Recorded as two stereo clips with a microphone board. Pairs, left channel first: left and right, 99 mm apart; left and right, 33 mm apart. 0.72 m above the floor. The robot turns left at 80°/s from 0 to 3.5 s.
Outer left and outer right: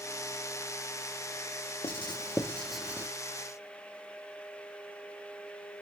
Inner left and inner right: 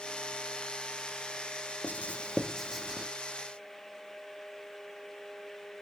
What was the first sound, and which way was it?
Writing, 65° left (ahead or behind).